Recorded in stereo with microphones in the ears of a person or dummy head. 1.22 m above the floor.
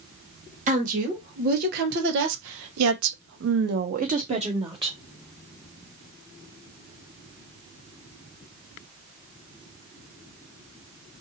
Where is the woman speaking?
40° right (ahead or behind), 1.6 m; by 5.0 s 25° right (ahead or behind), 1.1 m.